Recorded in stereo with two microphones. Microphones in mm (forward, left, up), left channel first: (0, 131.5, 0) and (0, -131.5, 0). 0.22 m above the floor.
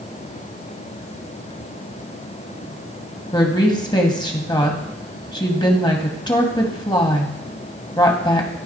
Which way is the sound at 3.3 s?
15° left (ahead or behind).